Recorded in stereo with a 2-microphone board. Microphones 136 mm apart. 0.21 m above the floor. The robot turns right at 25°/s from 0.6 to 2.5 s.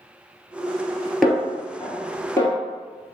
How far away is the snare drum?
About 0.8 m.